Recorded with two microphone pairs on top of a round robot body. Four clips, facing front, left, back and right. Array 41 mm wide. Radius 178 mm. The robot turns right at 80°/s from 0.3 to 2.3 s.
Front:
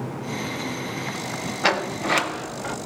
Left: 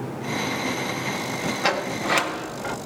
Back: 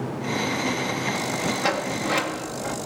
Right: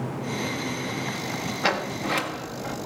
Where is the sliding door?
Straight ahead, 1.3 m; by 2.8 s 55° left, 1.3 m.